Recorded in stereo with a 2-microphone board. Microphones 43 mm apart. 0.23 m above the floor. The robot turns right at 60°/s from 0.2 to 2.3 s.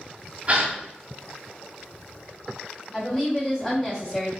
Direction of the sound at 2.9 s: 25° left (ahead or behind).